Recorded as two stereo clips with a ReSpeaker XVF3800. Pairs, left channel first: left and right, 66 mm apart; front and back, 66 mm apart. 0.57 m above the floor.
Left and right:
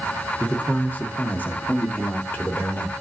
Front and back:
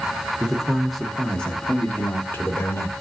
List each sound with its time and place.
0.4 s a man speaking: 120° left, 1.1 m; by 2.9 s 35° left, 1.6 m